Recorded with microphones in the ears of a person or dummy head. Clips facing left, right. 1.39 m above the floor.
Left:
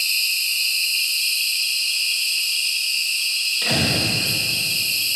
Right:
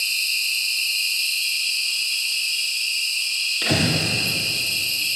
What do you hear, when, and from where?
0.0 s an insect: 10° left (ahead or behind), 1.9 m
3.6 s breathing: 30° right (ahead or behind), 1.0 m